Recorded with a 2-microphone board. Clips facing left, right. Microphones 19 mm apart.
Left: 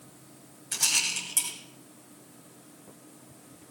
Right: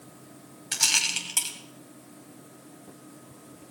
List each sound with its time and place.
0.7 s a rattle: 40° right (ahead or behind), 2 m